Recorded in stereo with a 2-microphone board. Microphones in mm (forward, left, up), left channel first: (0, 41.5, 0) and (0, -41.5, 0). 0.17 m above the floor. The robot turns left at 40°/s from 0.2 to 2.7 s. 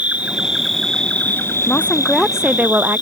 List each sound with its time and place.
0.0 s an insect: 160° right; by 3.0 s 100° left
1.7 s a woman speaking: 20° left; by 3.0 s 20° right